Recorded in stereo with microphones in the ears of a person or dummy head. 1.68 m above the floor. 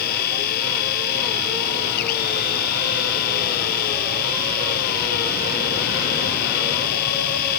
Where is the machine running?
55° left (ahead or behind).